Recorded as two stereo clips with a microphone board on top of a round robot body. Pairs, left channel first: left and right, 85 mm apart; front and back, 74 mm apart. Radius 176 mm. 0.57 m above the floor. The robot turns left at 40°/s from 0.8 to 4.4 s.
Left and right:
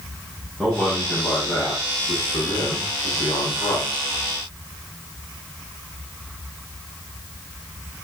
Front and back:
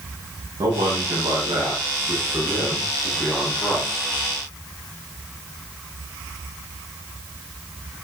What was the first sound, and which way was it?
A man speaking, 175° left.